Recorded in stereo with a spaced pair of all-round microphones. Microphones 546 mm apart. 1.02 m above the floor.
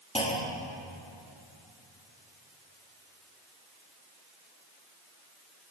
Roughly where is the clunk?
Centre.